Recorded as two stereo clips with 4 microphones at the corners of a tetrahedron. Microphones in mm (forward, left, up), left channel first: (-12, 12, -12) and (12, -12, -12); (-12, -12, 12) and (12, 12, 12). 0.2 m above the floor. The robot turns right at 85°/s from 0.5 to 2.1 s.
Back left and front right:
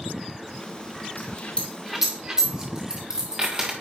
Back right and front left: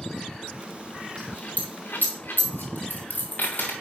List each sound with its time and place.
1.2 s a dropped coin: 165° left, 1.5 m; by 3.7 s 120° right, 1.5 m